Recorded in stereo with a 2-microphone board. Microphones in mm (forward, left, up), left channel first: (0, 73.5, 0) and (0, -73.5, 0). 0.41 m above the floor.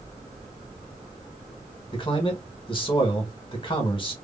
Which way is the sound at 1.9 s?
35° left (ahead or behind).